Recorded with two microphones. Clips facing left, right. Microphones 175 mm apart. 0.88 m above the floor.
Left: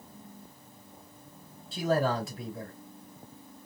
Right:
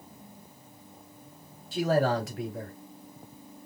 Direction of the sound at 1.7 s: 70° right (ahead or behind).